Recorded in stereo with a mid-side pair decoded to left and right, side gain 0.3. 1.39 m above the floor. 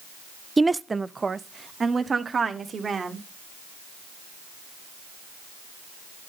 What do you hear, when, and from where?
0.6 s a woman speaking: 25° right, 0.6 m; by 3.2 s 55° right, 2.5 m